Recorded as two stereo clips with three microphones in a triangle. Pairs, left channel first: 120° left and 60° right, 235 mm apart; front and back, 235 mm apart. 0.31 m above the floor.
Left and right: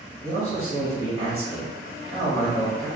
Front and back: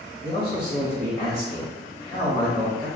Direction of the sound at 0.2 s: 65° right.